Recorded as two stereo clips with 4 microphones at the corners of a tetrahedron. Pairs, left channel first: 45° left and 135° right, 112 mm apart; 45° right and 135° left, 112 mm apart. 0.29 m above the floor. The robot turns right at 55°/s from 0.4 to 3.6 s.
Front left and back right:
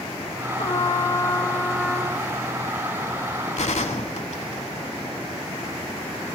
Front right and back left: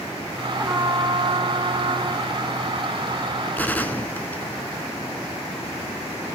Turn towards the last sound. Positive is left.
turn(degrees=30)